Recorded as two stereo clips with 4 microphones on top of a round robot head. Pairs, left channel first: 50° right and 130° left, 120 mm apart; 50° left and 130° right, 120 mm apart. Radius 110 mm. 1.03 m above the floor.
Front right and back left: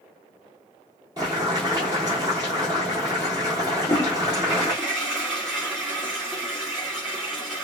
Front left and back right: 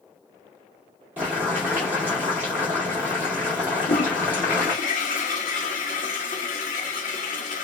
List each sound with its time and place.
1.2 s boiling: 165° left, 0.6 m
3.7 s a toilet flushing: 40° left, 0.7 m